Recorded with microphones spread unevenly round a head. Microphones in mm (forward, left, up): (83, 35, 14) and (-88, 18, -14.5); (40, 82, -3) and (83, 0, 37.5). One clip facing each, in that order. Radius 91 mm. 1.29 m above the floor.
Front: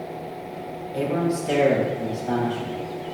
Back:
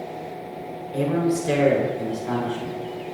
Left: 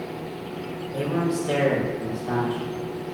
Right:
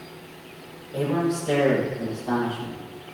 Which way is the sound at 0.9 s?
145° right.